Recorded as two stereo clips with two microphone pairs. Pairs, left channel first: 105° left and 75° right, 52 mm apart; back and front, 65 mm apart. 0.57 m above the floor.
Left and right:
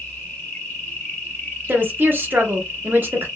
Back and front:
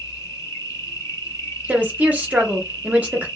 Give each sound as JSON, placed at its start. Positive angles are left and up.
{"t": 0.0, "sound": "an insect", "azimuth_deg": 155, "distance_m": 1.5}
{"t": 1.7, "sound": "a woman speaking", "azimuth_deg": -50, "distance_m": 0.9}